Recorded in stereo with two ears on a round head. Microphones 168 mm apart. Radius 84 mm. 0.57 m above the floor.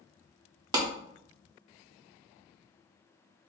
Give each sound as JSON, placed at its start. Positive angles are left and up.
{"t": 0.7, "sound": "a clap", "side_deg": -20, "distance_m": 0.8}